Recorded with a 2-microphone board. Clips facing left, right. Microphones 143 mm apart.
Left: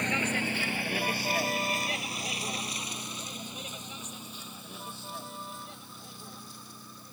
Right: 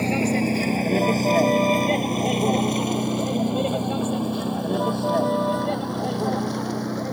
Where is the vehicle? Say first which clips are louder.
Right 11 dB; 30° right (ahead or behind); by 7.1 s 70° right (ahead or behind).